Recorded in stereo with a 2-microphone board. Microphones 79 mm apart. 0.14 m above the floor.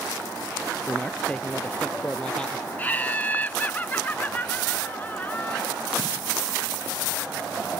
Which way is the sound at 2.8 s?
20° left (ahead or behind).